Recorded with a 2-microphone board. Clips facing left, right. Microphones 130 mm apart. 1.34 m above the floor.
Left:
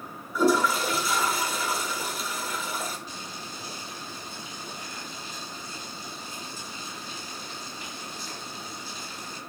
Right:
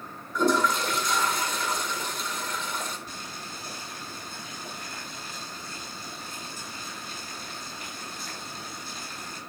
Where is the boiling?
55° right (ahead or behind), 9.5 m.